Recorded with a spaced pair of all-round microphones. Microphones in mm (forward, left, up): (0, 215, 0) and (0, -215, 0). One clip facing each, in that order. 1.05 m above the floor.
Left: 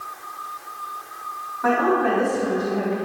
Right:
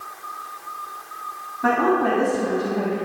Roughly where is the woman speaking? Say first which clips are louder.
Even; right.